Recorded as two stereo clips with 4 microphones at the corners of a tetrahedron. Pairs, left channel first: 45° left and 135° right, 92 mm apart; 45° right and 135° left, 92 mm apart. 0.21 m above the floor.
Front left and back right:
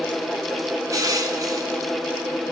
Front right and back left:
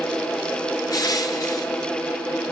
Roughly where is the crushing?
Right.